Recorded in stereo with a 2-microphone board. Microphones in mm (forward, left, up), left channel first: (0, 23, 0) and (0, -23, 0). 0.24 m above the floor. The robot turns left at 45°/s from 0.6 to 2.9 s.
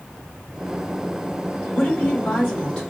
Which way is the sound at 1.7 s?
25° left (ahead or behind).